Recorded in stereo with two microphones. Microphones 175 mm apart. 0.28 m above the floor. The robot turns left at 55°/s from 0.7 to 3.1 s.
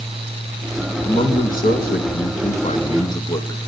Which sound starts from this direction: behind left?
A man speaking, at 1.0 s.